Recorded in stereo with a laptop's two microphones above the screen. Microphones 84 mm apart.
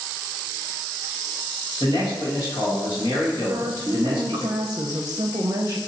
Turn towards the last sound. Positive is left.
turn(degrees=-45)  # may be behind; listen again after turning